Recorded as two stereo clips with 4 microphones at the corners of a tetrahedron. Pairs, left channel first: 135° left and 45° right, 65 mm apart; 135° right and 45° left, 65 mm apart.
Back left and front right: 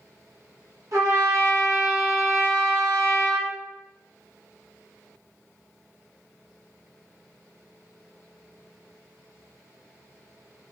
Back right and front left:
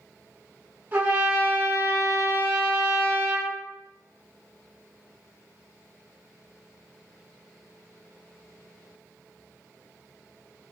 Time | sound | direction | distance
0.9 | a trumpet | 10° right | 1.2 m